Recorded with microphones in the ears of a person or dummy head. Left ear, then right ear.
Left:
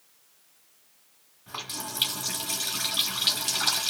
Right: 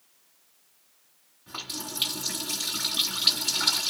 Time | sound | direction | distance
1.5 | a running tap | 20° left (ahead or behind) | 1.3 m